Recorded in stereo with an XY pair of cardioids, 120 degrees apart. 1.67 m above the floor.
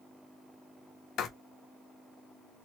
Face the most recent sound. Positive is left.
turn(degrees=60)